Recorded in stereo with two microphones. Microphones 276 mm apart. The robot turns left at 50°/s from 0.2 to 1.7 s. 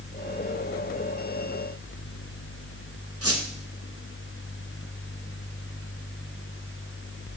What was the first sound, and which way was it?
A squeak, 55° right (ahead or behind).